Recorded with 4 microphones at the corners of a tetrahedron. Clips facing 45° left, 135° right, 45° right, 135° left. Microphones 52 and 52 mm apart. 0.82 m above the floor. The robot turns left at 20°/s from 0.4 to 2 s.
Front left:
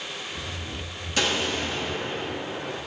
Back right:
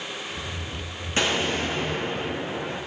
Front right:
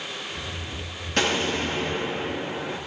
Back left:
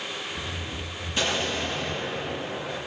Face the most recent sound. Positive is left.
turn(degrees=-90)